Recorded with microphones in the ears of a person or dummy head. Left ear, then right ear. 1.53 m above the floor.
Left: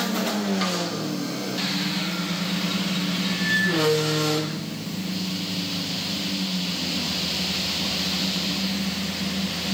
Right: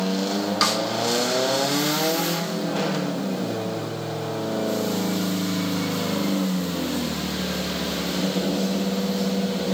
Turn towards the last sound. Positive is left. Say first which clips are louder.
# right 8 dB
turn(degrees=-45)  # may be behind; listen again after turning